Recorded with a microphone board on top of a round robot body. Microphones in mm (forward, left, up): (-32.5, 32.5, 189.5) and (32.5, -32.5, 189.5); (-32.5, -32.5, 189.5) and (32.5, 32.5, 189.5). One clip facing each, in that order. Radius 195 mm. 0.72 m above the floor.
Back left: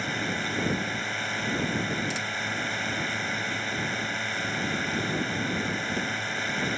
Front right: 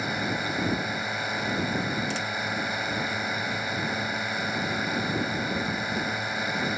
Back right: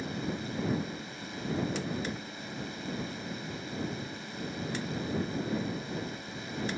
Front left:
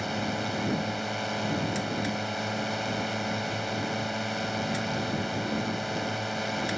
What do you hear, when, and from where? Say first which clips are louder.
0.0 s a drone: front right 2 dB, front left 5 dB; 35° left